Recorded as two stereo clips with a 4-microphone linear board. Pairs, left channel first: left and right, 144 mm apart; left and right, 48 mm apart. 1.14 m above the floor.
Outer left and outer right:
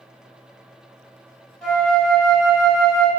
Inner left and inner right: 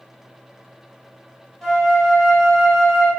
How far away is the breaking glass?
I don't hear breaking glass.